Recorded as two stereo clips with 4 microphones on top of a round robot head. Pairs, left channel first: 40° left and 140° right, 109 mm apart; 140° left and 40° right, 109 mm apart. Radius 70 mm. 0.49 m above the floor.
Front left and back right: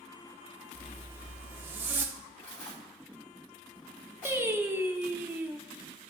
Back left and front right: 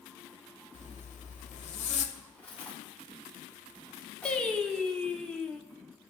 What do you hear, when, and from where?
0.7 s a zipper: 145° left, 0.9 m
2.1 s cutlery clinking: 70° left, 3 m
4.2 s singing: 150° right, 0.9 m